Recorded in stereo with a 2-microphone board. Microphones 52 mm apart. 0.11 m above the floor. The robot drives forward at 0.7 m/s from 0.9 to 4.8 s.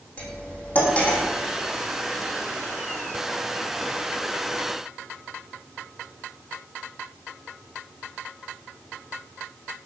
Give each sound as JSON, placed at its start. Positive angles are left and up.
{"t": 0.2, "sound": "cutlery clinking", "side_deg": 25, "distance_m": 3.5}